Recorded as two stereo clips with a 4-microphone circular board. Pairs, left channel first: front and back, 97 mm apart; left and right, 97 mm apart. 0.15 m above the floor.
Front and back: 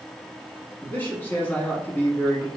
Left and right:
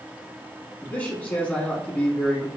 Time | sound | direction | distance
0.8 | a man speaking | 35° left | 1.1 m